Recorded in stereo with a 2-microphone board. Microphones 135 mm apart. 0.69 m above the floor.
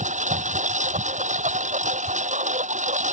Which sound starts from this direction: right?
A lawn mower, at 0.0 s.